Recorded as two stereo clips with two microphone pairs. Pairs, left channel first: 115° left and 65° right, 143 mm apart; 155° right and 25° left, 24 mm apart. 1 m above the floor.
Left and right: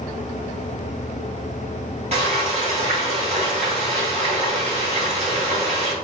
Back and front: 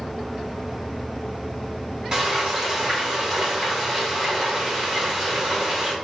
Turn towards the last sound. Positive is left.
turn(degrees=-30)